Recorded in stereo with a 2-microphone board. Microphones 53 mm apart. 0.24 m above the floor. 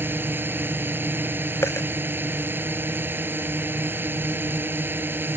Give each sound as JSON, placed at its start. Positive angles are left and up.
{"t": 0.0, "sound": "a drone", "side_deg": -45}
{"t": 1.6, "sound": "a dropped coin", "side_deg": 60}